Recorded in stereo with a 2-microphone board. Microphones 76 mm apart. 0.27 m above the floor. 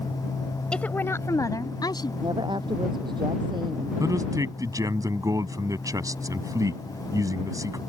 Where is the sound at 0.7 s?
10° left (ahead or behind); by 2.1 s 60° left (ahead or behind).